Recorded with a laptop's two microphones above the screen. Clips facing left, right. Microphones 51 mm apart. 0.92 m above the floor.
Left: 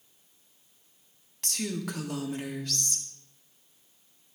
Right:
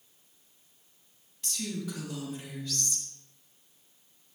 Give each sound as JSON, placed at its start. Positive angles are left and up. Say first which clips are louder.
{"t": 1.4, "sound": "a woman speaking", "louder": "left 3 dB", "side_deg": 65, "distance_m": 1.8}